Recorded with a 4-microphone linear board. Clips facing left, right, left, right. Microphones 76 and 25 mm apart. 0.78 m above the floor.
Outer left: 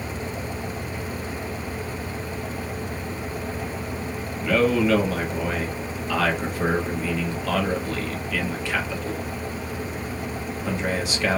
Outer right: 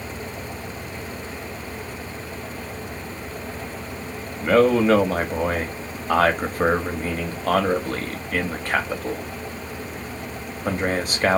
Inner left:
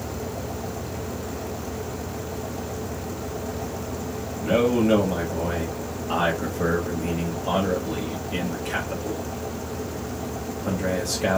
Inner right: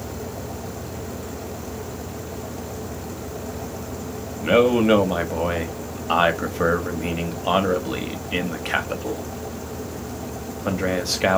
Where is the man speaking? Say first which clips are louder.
Outer right 4 dB, inner right 4 dB; 45° right (ahead or behind), 0.7 m.